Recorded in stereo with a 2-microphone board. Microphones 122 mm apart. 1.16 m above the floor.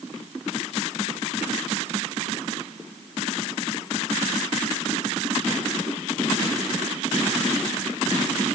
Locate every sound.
Only background noise.